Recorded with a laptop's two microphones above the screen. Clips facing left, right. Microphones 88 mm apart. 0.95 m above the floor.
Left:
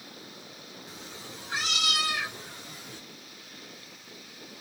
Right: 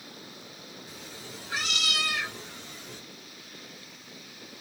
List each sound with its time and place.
0.9 s a cat meowing: 25° left (ahead or behind), 4 m; by 3.0 s 10° left (ahead or behind), 5 m